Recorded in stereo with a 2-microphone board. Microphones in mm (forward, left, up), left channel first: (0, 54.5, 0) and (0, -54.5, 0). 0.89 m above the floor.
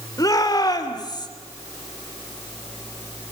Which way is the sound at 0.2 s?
35° left (ahead or behind).